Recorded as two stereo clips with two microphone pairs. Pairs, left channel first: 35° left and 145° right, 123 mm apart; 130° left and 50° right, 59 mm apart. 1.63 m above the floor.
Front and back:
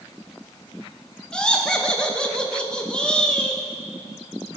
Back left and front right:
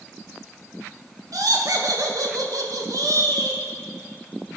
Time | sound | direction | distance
1.3 | laughter | 50° right | 2 m